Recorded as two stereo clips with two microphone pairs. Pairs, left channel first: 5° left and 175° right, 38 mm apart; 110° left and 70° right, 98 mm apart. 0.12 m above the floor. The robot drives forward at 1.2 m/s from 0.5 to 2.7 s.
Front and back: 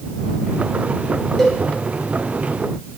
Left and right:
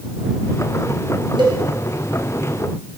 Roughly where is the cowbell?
Ahead right.